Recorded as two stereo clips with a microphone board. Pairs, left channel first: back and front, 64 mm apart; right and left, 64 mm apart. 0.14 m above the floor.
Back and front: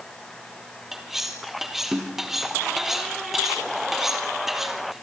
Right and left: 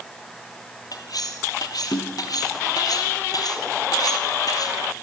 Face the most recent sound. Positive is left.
turn(degrees=-85)